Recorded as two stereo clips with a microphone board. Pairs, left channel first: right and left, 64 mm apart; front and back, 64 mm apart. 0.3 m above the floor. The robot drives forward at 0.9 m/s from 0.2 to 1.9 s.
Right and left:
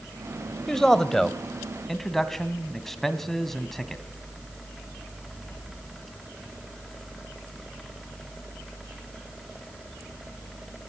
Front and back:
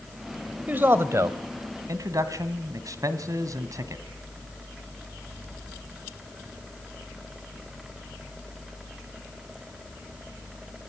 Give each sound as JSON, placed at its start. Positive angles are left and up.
{"t": 0.7, "sound": "a man speaking", "azimuth_deg": -160, "distance_m": 1.0}